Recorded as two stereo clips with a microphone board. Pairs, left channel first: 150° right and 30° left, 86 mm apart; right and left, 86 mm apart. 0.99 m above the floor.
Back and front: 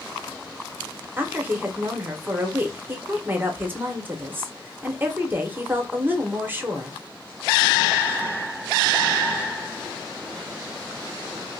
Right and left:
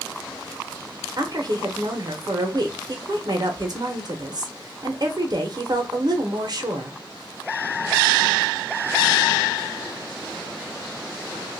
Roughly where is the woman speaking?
Left.